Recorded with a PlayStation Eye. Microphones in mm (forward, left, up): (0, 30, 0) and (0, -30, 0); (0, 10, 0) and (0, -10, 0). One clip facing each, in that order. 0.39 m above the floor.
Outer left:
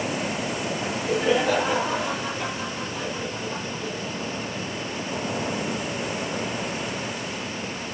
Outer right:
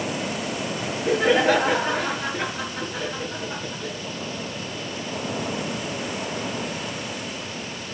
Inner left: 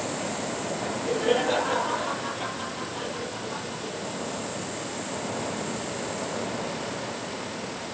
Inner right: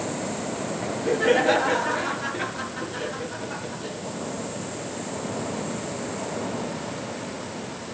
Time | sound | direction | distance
0.8 | laughter | 50° right (ahead or behind) | 5.5 m